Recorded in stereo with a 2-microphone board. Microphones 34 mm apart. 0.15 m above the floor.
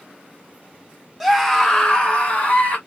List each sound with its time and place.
1.2 s a scream: centre (ahead or behind), 1.1 m; by 2.8 s 40° left (ahead or behind), 2 m